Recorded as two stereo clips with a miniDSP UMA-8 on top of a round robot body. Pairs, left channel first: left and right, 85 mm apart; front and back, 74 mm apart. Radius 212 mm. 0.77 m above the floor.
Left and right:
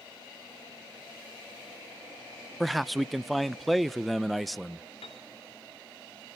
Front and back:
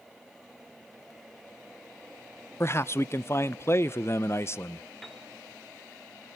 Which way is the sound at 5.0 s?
90° left.